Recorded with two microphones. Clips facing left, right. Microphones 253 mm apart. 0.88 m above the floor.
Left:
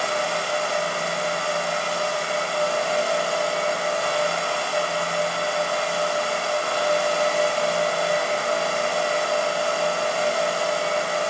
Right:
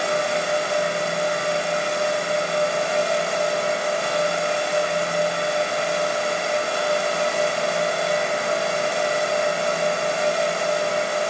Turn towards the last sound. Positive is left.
No sound to turn to.